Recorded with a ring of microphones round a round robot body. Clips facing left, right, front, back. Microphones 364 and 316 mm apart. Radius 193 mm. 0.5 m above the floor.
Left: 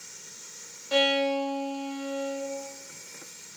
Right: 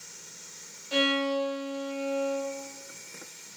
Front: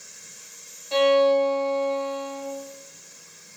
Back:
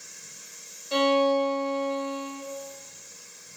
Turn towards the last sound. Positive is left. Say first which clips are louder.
# left 2 dB, front 4 dB
turn(degrees=110)